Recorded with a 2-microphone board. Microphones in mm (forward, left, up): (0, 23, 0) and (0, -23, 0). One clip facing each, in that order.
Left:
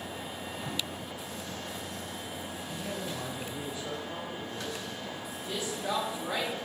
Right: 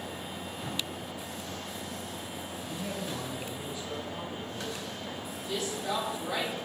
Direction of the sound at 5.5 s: 30° left (ahead or behind).